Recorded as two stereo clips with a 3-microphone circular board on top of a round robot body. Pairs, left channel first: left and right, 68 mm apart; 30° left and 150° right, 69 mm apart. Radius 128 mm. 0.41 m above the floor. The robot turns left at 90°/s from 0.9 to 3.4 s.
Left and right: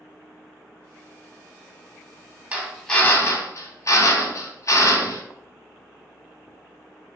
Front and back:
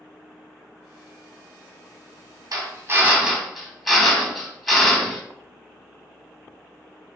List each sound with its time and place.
2.5 s a drill: 160° right, 1.2 m; by 5.2 s 120° left, 1.2 m